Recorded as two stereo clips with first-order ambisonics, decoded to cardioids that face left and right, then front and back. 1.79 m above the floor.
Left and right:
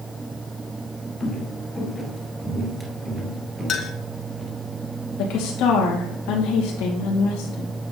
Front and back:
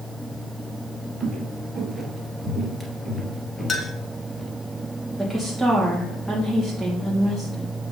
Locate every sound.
1.2 s footsteps: 130° left, 1.9 m; by 4.5 s 60° right, 2 m
3.7 s a clink: 60° left, 1.0 m
5.2 s a woman speaking: 90° left, 2.5 m